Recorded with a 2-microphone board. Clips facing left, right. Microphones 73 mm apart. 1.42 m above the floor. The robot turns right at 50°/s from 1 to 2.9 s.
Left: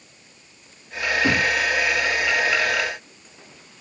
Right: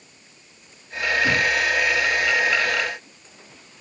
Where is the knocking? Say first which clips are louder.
Left 1 dB; 50° left (ahead or behind), 2.5 m; by 1.6 s 65° left (ahead or behind), 2.5 m.